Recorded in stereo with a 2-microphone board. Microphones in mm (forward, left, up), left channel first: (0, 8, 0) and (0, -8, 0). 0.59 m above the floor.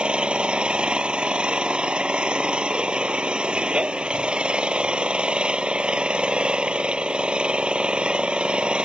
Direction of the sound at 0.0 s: 85° right.